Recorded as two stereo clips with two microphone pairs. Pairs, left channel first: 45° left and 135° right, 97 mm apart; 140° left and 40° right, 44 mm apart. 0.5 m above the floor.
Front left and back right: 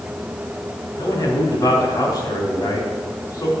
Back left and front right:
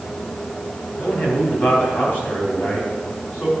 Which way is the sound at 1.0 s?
95° left.